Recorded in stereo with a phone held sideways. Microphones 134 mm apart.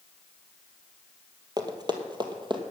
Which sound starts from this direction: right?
Running footsteps, at 1.6 s.